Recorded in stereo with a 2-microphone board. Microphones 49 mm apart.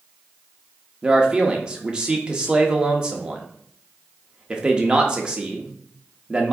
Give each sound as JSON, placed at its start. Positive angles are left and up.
{"t": 1.0, "sound": "a man speaking", "side_deg": -20, "distance_m": 0.7}